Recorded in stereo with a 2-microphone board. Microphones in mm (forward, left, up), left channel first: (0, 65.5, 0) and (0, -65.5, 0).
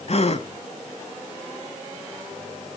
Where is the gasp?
55° left (ahead or behind), 0.8 m.